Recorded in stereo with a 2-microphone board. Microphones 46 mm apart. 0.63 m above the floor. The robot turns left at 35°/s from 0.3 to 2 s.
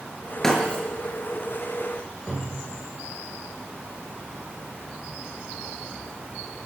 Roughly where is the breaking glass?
Centre.